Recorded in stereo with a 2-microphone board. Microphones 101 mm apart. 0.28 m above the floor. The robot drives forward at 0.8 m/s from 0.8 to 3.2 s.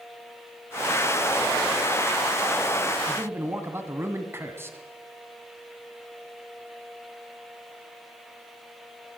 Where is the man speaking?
25° right (ahead or behind), 2.5 m.